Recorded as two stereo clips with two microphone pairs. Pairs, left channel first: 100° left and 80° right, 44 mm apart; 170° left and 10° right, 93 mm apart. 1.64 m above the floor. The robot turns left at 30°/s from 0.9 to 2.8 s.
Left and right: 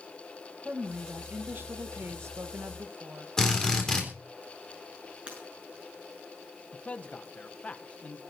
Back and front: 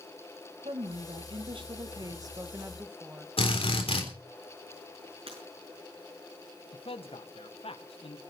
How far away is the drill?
About 3.5 m.